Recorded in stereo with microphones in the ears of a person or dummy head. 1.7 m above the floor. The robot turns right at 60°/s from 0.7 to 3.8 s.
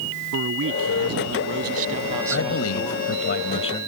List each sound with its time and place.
0.3 s a man speaking: 110° right; by 3.3 s 45° left
2.3 s a man speaking: 70° left; by 3.9 s 160° left